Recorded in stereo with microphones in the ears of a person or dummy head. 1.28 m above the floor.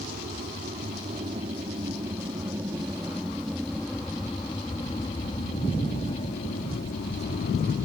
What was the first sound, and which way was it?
An aircraft, 40° right (ahead or behind).